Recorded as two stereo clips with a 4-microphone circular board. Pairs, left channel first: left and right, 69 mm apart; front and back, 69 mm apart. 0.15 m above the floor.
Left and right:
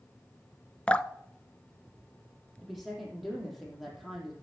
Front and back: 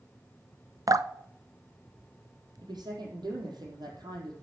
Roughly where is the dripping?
Behind.